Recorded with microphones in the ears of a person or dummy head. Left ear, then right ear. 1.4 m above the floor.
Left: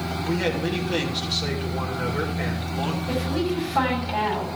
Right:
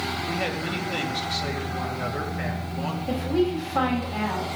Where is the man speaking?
5° right (ahead or behind), 3 m.